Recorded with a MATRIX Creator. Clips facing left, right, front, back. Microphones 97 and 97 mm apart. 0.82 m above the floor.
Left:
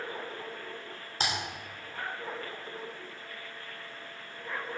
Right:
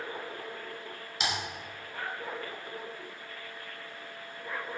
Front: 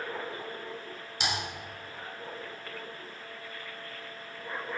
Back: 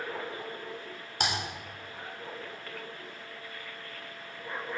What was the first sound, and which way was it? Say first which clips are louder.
Typing on a keyboard: even, back 2 dB; 140° left.